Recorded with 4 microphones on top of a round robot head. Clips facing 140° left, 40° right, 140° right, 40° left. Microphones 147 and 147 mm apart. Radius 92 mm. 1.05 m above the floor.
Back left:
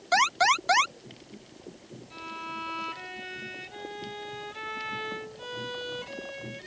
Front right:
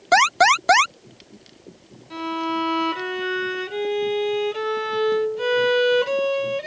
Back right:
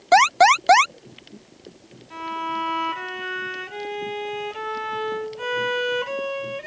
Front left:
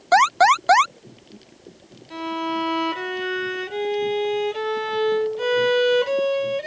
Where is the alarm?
70° right.